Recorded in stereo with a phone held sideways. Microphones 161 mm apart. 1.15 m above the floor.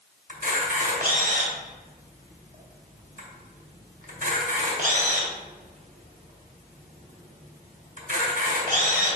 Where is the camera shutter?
60° right (ahead or behind), 2.5 m.